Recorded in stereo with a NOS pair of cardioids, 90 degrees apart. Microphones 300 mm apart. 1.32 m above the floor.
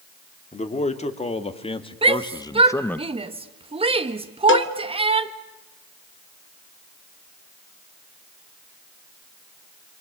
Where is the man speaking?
25° left, 3.5 m; by 3.0 s 5° left, 1.2 m.